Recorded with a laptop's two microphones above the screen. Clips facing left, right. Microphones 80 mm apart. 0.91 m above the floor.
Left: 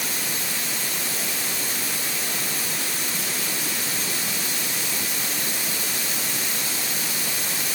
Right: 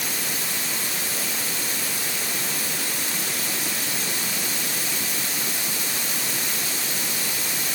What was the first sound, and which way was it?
Only background noise.